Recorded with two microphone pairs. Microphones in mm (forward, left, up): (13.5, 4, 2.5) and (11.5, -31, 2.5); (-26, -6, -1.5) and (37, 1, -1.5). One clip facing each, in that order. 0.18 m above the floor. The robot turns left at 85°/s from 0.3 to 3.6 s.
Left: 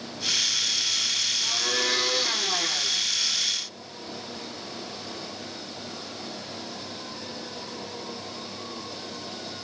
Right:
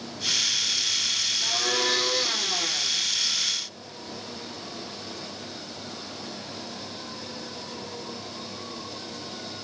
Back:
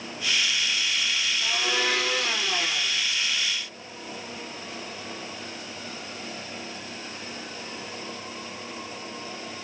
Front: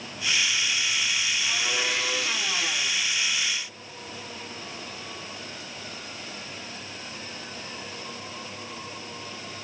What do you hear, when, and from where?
1.4 s a blender: 125° right, 5.5 m; by 3.0 s 100° left, 5.5 m